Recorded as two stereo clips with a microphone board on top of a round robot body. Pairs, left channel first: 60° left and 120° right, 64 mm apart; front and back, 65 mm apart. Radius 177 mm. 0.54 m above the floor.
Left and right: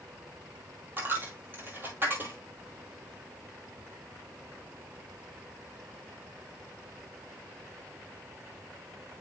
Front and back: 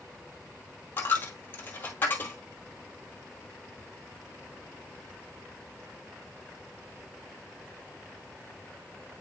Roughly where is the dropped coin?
Ahead right.